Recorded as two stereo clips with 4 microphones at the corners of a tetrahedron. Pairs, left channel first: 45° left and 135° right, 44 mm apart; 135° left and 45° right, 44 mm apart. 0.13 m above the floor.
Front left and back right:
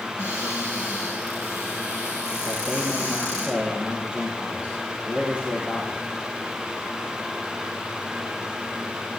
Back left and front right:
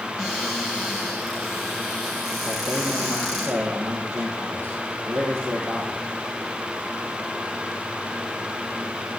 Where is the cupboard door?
135° right, 8.5 m.